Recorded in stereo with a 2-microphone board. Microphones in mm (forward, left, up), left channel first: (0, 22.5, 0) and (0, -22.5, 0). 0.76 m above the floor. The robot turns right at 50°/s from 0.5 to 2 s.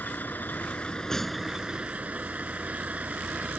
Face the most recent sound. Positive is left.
turn(degrees=-150)